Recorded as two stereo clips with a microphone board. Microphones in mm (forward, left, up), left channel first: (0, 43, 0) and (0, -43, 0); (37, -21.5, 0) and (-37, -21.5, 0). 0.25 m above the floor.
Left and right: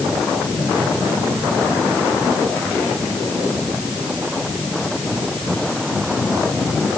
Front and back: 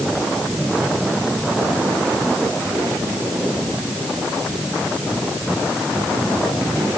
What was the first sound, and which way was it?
Only background noise.